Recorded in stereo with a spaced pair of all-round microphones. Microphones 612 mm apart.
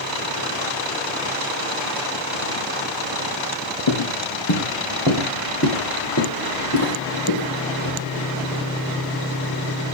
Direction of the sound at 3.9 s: 45° left (ahead or behind).